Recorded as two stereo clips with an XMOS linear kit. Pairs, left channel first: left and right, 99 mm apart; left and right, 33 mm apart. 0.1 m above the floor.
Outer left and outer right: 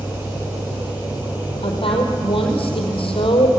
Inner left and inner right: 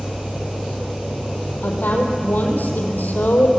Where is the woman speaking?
70° left (ahead or behind), 4.5 m.